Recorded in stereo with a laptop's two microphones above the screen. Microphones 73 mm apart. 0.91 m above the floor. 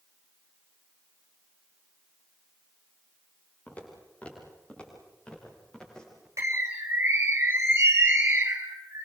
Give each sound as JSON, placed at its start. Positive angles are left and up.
{"t": 3.7, "sound": "footsteps", "side_deg": 20, "distance_m": 6.0}
{"t": 6.4, "sound": "a bird", "side_deg": -45, "distance_m": 3.5}